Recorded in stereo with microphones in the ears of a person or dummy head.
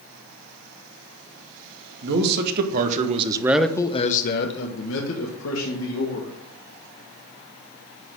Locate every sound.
2.0 s a man speaking: 60° right (ahead or behind), 2 m; by 6.3 s 80° left, 3 m